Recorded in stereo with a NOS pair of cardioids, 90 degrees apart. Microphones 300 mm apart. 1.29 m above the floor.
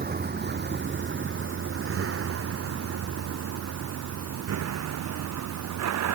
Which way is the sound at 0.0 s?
35° right.